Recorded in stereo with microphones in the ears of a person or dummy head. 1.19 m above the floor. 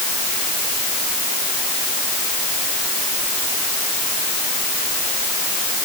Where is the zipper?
I don't hear a zipper.